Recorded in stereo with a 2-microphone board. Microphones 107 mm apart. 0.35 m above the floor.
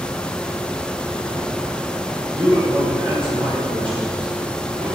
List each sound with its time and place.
2.3 s a man speaking: 55° right (ahead or behind), 3 m